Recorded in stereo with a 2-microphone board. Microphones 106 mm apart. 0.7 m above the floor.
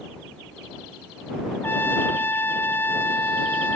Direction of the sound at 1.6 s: 20° left (ahead or behind).